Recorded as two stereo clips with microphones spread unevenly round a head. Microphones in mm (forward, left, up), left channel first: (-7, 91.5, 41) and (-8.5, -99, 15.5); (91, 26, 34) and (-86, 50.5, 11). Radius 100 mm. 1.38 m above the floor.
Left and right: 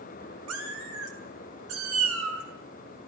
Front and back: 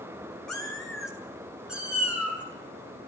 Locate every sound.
0.5 s a cat meowing: 90° right, 2.5 m; by 2.4 s 105° right, 4 m